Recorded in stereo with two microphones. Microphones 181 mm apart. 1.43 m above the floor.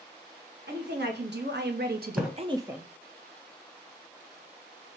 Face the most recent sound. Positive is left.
turn(degrees=-5)  # may be behind; listen again after turning